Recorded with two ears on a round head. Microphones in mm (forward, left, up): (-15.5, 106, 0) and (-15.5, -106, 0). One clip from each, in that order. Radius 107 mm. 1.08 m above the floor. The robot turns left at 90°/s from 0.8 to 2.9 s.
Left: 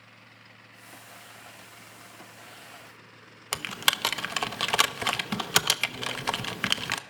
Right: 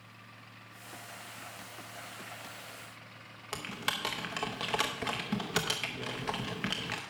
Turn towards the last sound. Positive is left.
turn(degrees=50)  # may be behind; listen again after turning